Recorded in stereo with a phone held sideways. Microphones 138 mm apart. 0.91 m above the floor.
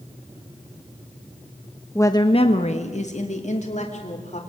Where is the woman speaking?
15° left (ahead or behind), 1.1 m; by 4.4 s 55° left (ahead or behind), 3.5 m.